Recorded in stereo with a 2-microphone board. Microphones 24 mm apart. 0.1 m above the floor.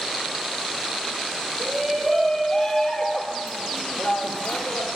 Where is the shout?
5° right (ahead or behind), 2.5 m; by 4.9 s 60° left (ahead or behind), 2.5 m.